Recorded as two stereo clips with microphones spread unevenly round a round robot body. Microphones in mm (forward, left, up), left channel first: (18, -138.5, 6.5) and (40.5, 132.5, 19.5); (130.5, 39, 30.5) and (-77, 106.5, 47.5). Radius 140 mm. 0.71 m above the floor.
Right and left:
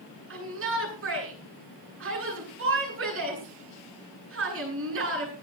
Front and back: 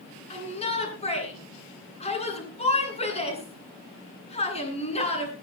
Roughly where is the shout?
Ahead left.